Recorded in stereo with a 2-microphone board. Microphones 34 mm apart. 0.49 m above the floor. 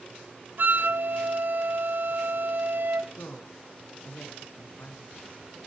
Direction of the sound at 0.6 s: 60° right (ahead or behind).